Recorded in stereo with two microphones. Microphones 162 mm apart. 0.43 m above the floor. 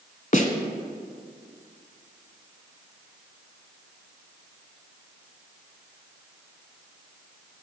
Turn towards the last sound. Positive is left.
turn(degrees=50)  # may be behind; listen again after turning